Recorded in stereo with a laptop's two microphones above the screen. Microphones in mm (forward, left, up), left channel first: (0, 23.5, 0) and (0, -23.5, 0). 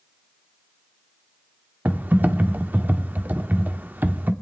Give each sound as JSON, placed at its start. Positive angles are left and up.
{"t": 1.9, "sound": "typing on a keyboard", "side_deg": -40, "distance_m": 1.0}